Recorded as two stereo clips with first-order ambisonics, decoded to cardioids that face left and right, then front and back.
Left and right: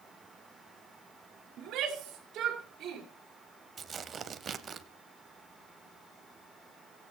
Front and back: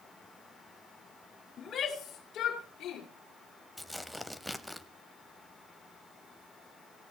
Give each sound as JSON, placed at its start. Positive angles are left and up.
{"t": 1.6, "sound": "a shout", "azimuth_deg": -60, "distance_m": 2.0}
{"t": 3.8, "sound": "tearing paper", "azimuth_deg": -90, "distance_m": 0.5}